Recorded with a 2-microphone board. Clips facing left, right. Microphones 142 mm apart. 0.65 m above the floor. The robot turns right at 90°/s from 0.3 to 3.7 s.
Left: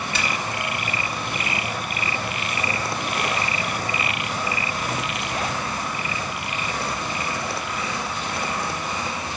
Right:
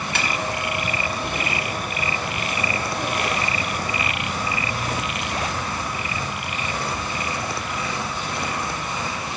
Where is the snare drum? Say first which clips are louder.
Right 1 dB; 55° right (ahead or behind), 1.2 m.